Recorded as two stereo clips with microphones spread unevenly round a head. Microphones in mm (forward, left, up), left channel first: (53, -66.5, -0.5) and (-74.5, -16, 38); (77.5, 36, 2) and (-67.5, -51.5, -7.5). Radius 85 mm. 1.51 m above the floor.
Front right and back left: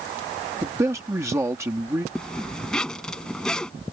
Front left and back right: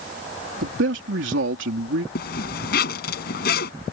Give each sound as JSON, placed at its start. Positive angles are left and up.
{"t": 0.6, "sound": "a man speaking", "azimuth_deg": -130}
{"t": 2.1, "sound": "a zipper", "azimuth_deg": 70}